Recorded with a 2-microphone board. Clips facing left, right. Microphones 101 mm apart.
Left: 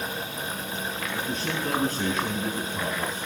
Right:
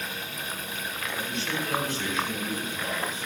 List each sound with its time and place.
1.1 s a man speaking: 40° left (ahead or behind), 8 m